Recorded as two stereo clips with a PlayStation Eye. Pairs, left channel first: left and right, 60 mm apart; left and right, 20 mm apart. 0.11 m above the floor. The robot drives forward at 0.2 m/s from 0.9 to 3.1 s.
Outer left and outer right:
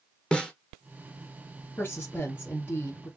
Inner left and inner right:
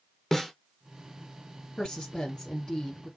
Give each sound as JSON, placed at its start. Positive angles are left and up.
{"t": 0.3, "sound": "a snare drum", "side_deg": 15, "distance_m": 1.1}
{"t": 1.8, "sound": "a woman speaking", "side_deg": 40, "distance_m": 2.5}